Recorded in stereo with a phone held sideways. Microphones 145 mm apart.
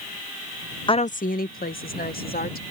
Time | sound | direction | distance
0.9 | a woman speaking | 30° left (ahead or behind) | ?